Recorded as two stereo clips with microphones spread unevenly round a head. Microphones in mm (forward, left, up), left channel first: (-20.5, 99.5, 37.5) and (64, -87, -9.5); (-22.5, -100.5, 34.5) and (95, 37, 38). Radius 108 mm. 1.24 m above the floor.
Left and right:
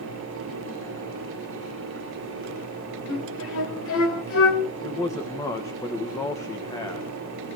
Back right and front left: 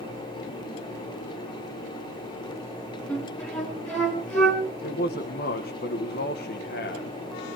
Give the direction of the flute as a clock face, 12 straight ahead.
7 o'clock.